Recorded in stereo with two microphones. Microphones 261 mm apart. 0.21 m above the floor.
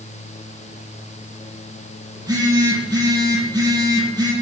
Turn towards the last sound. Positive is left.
turn(degrees=-15)  # may be behind; listen again after turning